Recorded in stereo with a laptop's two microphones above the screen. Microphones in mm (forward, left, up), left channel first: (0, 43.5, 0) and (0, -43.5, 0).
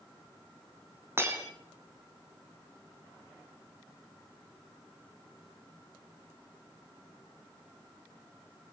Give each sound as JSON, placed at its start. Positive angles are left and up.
{"t": 1.2, "sound": "breaking glass", "side_deg": -30, "distance_m": 3.0}